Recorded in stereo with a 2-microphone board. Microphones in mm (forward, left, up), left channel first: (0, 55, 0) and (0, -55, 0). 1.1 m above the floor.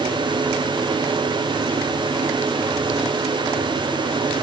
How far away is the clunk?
I don't hear a clunk.